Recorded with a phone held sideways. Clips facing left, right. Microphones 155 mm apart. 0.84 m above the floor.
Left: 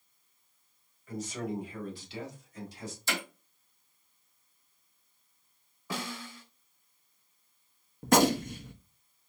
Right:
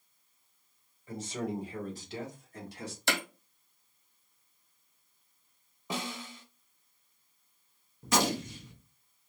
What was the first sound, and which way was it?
A man speaking, 30° right (ahead or behind).